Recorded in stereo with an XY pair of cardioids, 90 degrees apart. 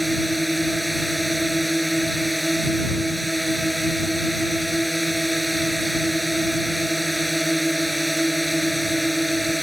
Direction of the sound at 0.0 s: 5° right.